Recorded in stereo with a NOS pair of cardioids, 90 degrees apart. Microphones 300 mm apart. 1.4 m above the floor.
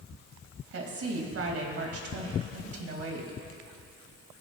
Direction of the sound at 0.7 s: 50° right.